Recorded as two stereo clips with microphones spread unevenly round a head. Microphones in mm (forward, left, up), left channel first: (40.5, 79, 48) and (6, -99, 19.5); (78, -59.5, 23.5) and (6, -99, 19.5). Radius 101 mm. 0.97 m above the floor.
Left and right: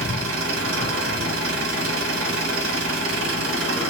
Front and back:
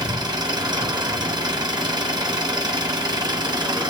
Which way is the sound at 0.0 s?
115° right.